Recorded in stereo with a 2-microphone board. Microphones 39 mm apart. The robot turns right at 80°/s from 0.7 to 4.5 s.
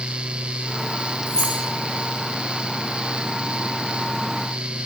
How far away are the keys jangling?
About 2 m.